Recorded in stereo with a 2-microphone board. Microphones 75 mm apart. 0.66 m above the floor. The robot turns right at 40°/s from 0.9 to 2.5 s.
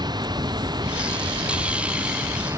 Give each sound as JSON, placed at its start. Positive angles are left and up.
{"t": 0.0, "sound": "running water", "azimuth_deg": -110}